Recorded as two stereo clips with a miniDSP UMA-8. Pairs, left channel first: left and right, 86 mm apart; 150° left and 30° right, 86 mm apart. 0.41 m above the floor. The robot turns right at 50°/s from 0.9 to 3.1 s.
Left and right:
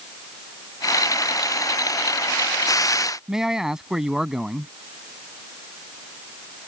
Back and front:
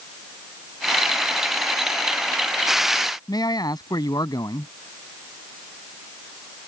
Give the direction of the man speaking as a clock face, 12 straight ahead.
6 o'clock.